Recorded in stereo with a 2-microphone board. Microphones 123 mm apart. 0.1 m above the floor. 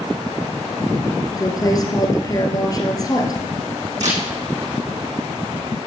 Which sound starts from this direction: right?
A camera shutter, at 4.0 s.